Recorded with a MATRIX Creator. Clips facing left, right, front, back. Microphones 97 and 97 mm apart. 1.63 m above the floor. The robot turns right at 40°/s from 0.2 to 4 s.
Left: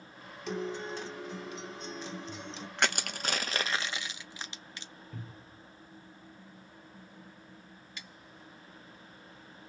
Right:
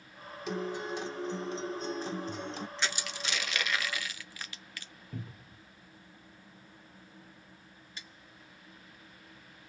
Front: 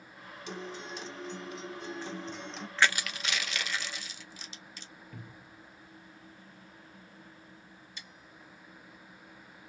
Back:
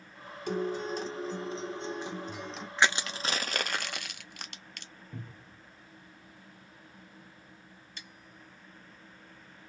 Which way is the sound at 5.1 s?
110° right.